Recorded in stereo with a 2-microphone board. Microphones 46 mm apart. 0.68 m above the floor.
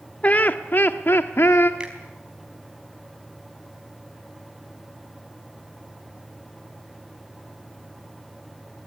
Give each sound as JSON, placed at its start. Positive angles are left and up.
{"t": 0.2, "sound": "laughter", "side_deg": 30, "distance_m": 1.1}
{"t": 1.8, "sound": "a finger snap", "side_deg": -20, "distance_m": 4.0}